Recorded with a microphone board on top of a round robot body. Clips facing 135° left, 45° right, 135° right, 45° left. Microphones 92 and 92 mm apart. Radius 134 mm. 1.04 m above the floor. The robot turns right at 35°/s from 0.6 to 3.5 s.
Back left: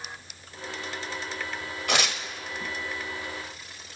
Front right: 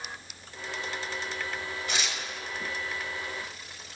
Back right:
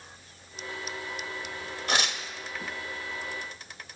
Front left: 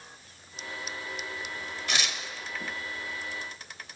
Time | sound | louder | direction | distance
1.9 | tearing paper | back left 8 dB, back right 4 dB | 170° left | 1.3 m